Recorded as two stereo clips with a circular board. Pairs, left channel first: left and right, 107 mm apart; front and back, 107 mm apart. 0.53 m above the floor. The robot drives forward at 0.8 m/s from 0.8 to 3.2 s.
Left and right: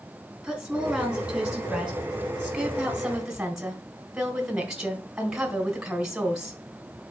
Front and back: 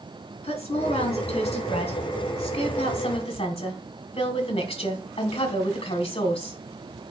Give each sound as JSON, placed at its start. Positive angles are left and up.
{"t": 0.4, "sound": "a woman speaking", "azimuth_deg": -5, "distance_m": 3.5}